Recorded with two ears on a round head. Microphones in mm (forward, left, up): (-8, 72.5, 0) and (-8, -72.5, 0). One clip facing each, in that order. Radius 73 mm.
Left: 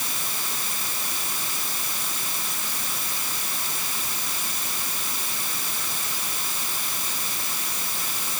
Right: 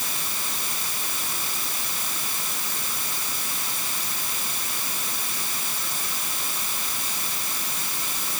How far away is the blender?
I don't hear a blender.